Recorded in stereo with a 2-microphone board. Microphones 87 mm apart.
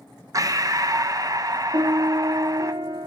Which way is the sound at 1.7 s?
65° right (ahead or behind).